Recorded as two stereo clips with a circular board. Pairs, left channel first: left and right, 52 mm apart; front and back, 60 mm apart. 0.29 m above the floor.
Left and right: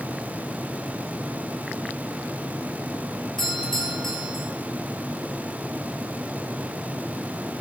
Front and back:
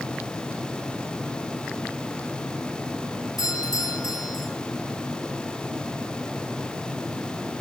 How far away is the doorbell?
About 9.5 m.